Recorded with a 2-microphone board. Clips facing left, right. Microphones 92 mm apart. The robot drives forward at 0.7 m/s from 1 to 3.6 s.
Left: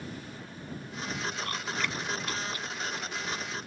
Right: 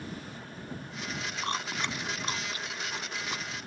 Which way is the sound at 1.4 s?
25° right (ahead or behind).